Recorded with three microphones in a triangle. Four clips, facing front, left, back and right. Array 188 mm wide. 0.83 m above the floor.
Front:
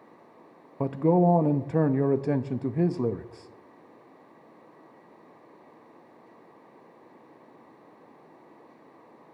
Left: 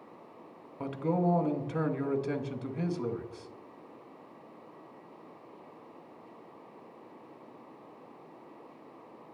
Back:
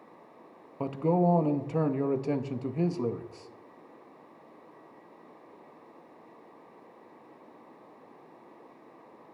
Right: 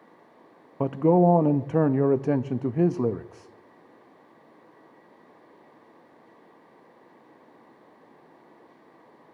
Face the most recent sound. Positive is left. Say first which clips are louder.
# right 11 dB, front 4 dB
turn(degrees=-70)